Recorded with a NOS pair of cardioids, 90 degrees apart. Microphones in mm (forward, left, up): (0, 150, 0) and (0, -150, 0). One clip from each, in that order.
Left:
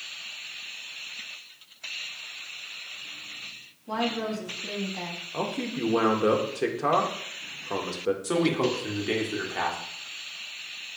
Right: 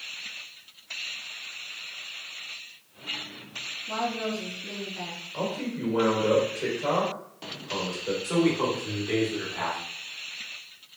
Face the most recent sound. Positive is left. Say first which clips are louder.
# right 2 dB
turn(degrees=65)